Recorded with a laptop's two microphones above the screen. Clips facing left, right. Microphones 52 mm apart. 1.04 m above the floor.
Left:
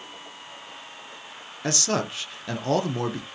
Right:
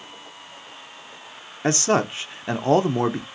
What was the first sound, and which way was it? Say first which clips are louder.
A man speaking: right 6 dB; 25° right (ahead or behind).